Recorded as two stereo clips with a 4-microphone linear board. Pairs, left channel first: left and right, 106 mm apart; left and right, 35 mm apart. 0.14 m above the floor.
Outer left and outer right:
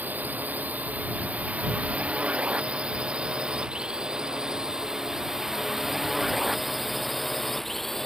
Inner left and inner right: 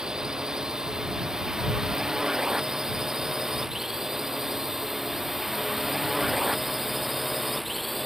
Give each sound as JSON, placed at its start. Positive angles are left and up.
{"t": 0.0, "sound": "a drone", "side_deg": -15}